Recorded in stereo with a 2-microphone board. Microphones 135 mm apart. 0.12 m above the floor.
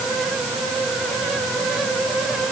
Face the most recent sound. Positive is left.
No sound to turn to.